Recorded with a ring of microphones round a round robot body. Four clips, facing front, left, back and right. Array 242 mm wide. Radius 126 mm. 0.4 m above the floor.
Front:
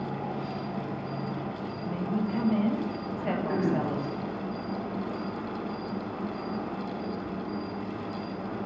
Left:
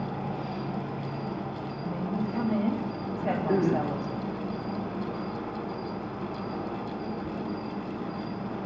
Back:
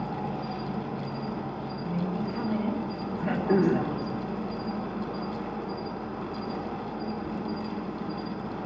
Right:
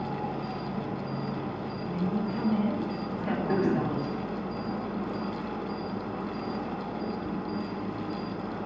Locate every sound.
0.0 s an insect: 130° left, 4 m
1.8 s a woman speaking: 65° left, 2 m
3.2 s throat clearing: 165° left, 1.0 m